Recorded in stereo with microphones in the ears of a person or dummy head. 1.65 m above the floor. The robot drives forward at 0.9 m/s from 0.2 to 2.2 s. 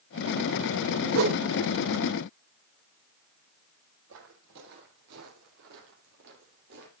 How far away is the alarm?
No alarm in this recording.